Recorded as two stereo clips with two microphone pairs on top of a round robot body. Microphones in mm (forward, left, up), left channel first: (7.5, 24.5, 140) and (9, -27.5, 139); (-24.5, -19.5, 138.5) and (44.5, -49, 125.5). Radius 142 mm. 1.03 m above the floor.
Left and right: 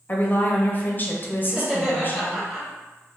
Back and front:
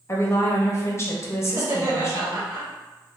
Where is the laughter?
Straight ahead, 0.8 m.